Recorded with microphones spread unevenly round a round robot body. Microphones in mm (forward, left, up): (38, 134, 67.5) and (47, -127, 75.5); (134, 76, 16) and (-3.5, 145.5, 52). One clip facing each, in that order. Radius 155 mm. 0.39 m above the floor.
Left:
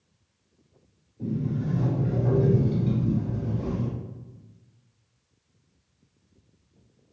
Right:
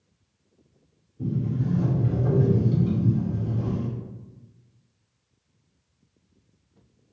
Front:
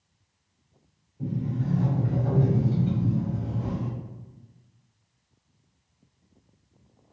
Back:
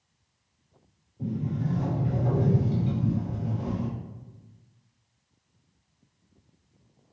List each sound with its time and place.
1.2 s a sliding door: 125° right, 1.5 m